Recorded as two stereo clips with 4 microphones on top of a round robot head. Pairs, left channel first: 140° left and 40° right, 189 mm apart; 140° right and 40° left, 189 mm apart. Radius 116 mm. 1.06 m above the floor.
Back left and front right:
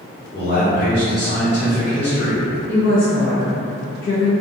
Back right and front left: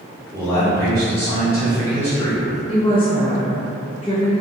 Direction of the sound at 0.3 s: 145° left.